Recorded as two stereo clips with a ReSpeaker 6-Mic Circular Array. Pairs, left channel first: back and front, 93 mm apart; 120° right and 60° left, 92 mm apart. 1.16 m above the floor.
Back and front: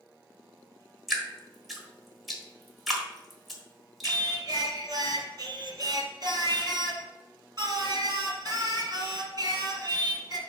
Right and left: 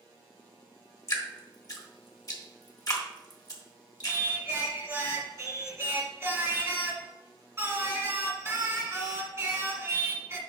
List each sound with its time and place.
1.1 s dripping: 90° right, 1.4 m
4.0 s singing: 10° left, 1.6 m